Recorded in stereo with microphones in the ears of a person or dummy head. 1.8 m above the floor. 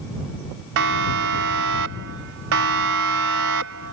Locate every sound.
0.8 s a siren: 65° right (ahead or behind)